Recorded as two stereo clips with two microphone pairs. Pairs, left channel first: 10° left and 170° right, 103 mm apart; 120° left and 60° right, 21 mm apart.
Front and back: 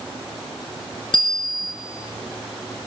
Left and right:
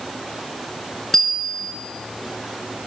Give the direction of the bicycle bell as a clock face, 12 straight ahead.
10 o'clock.